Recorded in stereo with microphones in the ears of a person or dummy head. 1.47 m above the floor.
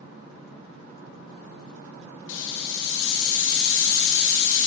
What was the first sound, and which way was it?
A hiss, 70° left (ahead or behind).